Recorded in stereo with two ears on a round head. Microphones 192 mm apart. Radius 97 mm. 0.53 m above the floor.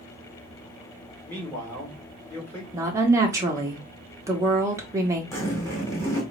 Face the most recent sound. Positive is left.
turn(degrees=15)  # may be behind; listen again after turning